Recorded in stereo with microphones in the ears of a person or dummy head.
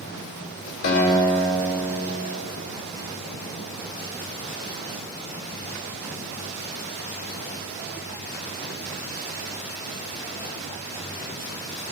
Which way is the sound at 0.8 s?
65° left (ahead or behind).